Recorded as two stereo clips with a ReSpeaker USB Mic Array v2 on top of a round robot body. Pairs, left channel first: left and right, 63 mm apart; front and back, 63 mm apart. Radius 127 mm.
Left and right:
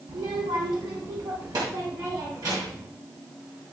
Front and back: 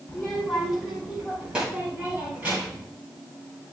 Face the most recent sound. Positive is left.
turn(degrees=-115)